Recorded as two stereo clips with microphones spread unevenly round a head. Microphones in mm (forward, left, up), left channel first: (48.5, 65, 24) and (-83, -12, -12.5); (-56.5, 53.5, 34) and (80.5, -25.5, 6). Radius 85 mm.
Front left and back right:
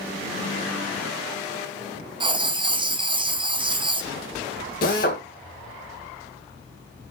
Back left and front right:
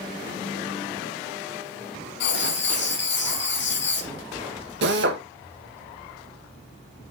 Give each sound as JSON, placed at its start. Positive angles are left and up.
{"t": 2.2, "sound": "writing", "azimuth_deg": 145, "distance_m": 0.7}
{"t": 4.8, "sound": "a drill", "azimuth_deg": -10, "distance_m": 1.4}